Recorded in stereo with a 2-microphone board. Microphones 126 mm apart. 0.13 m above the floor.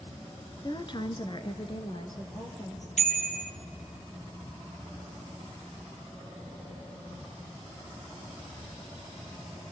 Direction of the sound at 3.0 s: 70° left (ahead or behind).